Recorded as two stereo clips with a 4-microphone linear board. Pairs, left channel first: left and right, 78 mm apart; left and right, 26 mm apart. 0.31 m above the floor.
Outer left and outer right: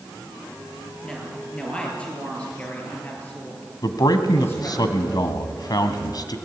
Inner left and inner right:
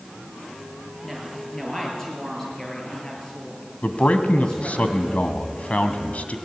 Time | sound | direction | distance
1.0 | a woman speaking | 5° left (ahead or behind) | 6 m
3.8 | a man speaking | 60° left (ahead or behind) | 1.8 m